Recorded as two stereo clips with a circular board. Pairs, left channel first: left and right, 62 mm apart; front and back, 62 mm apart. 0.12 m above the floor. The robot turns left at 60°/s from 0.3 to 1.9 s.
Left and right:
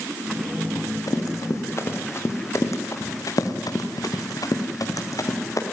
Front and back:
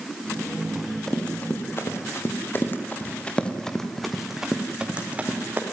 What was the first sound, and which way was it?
Running footsteps, 95° left.